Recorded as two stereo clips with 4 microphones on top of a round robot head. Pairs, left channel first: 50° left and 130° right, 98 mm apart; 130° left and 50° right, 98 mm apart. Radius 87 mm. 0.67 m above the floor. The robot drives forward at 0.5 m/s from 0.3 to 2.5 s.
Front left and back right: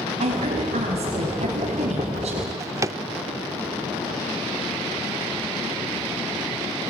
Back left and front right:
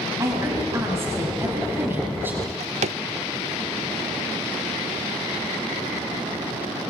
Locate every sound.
0.2 s a woman speaking: 110° right, 4.5 m; by 2.3 s 125° right, 5 m
2.4 s a drawer: 65° right, 0.5 m